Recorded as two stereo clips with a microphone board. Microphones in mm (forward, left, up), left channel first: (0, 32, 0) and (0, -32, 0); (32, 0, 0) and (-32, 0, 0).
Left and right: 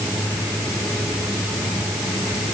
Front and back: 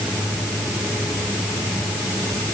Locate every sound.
Only background noise.